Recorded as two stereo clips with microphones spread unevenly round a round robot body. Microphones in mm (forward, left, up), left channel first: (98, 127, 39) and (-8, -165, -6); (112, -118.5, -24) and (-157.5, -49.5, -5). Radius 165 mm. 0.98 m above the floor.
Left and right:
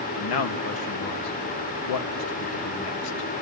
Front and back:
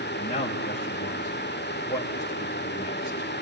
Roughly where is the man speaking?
Ahead left.